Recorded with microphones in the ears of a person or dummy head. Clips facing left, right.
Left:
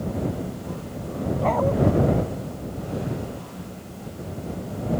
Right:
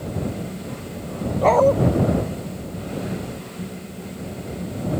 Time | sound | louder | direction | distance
1.4 | a dog barking | right 8 dB | 60° right (ahead or behind) | ?